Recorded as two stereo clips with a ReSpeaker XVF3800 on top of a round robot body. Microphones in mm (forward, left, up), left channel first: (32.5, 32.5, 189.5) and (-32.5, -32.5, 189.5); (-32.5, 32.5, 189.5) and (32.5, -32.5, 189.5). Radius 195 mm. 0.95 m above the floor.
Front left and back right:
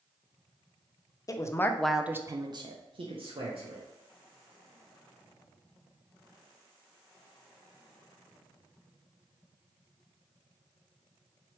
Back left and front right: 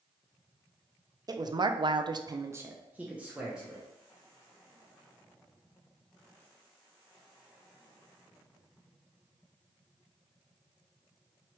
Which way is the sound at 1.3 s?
5° right.